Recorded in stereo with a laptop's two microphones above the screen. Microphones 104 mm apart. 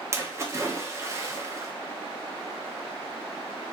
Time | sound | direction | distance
0.1 | a splash | 25° right (ahead or behind) | 0.5 m